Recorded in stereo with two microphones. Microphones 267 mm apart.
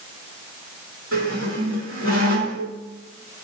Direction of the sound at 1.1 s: 55° right (ahead or behind).